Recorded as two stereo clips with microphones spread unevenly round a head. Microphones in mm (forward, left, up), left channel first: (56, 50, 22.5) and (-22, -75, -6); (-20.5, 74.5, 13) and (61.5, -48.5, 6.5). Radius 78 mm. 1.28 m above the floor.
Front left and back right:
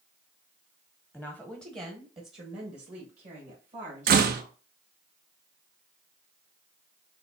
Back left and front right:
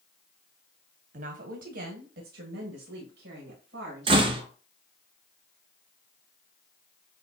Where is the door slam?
110° right, 0.6 m.